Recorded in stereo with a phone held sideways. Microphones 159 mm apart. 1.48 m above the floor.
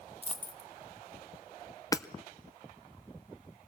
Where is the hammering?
20° left (ahead or behind), 0.5 m.